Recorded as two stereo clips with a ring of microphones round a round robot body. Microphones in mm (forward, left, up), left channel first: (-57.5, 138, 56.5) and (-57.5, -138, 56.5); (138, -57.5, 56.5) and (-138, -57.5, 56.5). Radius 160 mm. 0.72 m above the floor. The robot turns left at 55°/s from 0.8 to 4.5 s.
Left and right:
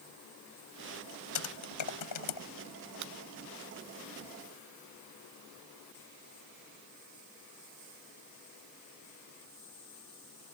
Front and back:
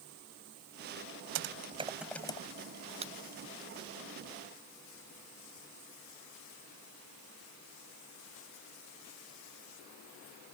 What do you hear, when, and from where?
1.4 s typing on a keyboard: 130° left; by 2.4 s 75° left
3.0 s breaking glass: 110° right; by 3.1 s 115° right